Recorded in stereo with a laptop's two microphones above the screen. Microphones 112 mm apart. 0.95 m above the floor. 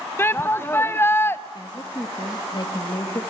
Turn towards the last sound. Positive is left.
turn(degrees=45)  # may be behind; listen again after turning